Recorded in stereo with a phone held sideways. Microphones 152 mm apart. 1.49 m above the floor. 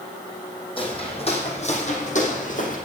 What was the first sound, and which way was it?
Footsteps, 35° left (ahead or behind).